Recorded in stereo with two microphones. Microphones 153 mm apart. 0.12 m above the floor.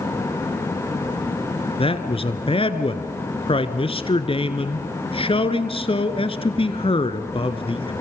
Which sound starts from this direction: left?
A man speaking, at 1.8 s.